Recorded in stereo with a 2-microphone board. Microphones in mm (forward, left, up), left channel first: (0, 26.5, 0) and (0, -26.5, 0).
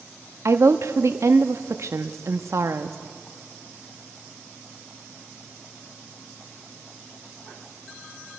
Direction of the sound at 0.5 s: 65° right (ahead or behind).